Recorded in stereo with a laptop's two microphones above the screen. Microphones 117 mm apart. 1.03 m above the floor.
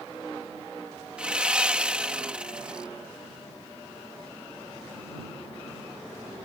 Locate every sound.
1.2 s sawing: 10° right (ahead or behind)